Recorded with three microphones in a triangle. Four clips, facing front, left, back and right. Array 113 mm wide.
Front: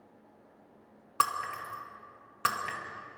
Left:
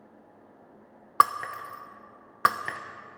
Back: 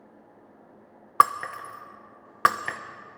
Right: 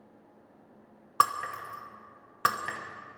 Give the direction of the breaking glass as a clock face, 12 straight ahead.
7 o'clock.